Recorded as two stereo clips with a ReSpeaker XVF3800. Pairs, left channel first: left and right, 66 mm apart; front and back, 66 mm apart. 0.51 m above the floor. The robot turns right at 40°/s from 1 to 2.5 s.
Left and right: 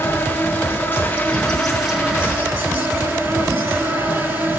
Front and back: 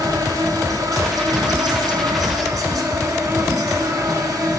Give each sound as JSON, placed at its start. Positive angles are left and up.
{"t": 0.0, "sound": "an insect", "azimuth_deg": 155, "distance_m": 1.8}